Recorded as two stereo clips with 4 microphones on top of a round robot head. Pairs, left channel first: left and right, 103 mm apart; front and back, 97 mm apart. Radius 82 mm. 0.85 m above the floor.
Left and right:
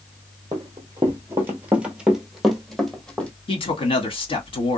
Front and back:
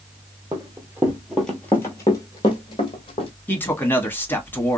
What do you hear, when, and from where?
0.5 s running footsteps: 135° right, 1.0 m; by 3.3 s 10° left, 1.3 m
3.5 s a man speaking: 65° left, 1.7 m